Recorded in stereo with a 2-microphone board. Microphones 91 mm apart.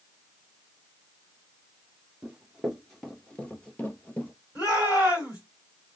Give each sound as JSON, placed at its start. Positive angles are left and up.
{"t": 2.2, "sound": "running footsteps", "side_deg": -10, "distance_m": 1.0}
{"t": 4.5, "sound": "a shout", "side_deg": 45, "distance_m": 3.0}